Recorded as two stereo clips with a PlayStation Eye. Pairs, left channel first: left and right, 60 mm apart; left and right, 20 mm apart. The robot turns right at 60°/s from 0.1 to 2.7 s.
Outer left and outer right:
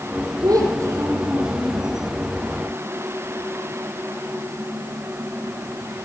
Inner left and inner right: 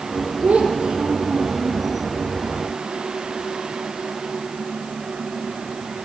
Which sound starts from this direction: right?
A child speaking, at 0.4 s.